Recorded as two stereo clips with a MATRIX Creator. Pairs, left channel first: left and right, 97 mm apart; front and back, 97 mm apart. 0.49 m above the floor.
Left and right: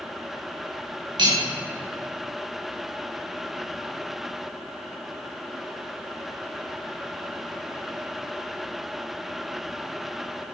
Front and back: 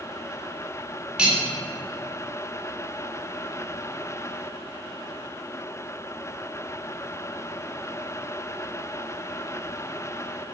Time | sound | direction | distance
1.2 | cutlery clinking | 105° right | 0.7 m